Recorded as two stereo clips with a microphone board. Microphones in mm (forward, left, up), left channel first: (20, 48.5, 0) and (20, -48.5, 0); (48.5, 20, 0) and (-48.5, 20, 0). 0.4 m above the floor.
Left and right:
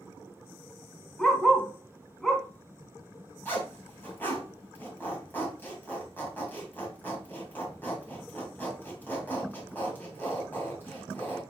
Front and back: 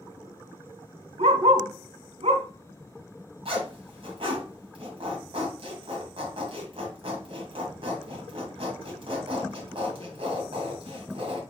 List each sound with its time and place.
1.2 s a dog barking: 175° left, 1.4 m
3.5 s a zipper: 160° left, 2.5 m